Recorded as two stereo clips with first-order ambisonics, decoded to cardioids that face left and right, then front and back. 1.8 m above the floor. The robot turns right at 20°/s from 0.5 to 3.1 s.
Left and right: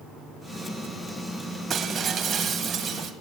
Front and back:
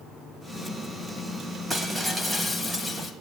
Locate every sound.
1.7 s breaking glass: 115° right, 1.8 m; by 3.1 s 85° right, 1.8 m